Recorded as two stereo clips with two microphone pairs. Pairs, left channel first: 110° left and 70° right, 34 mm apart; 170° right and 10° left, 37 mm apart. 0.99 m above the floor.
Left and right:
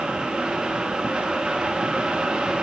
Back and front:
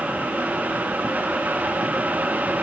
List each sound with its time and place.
Only background noise.